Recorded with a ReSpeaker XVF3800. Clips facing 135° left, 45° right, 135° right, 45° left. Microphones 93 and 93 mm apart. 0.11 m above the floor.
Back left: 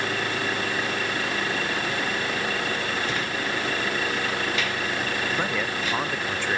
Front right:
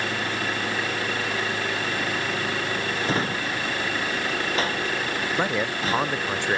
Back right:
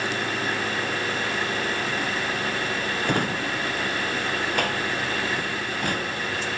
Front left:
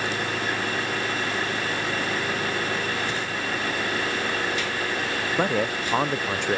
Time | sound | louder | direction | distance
3.0 | a drawer | front right 2 dB, back right 3 dB | 100° right | ?
5.4 | a man speaking | front right 2 dB, front left 5 dB | 25° left | ?